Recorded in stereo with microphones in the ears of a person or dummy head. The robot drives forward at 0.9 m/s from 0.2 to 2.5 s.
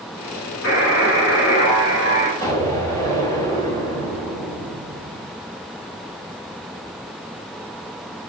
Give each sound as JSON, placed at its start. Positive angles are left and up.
{"t": 0.6, "sound": "a buzzer", "side_deg": 60, "distance_m": 5.0}
{"t": 2.4, "sound": "an explosion", "side_deg": 20, "distance_m": 3.5}